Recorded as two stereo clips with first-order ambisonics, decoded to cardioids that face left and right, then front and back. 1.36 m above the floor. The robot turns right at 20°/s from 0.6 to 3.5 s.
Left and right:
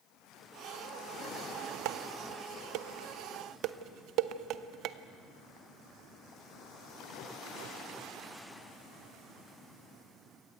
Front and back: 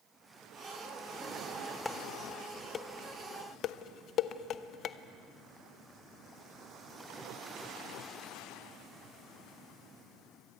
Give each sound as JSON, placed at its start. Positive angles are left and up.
{"t": 1.9, "sound": "dishes clattering", "azimuth_deg": -85, "distance_m": 0.7}